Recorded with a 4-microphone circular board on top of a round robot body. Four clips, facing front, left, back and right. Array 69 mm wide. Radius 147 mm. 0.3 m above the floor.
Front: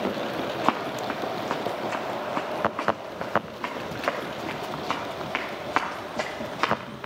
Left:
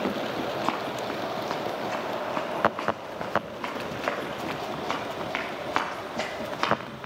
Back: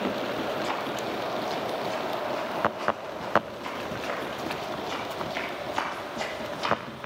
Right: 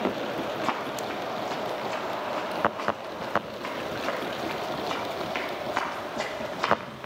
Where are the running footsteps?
5° left, 0.7 m; by 6.8 s 35° left, 5.5 m.